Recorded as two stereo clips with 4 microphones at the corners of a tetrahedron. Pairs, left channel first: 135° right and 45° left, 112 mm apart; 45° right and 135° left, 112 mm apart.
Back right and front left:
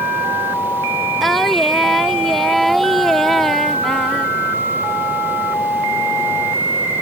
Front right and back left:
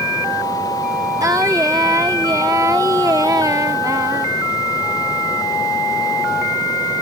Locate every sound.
1.2 s singing: 135° left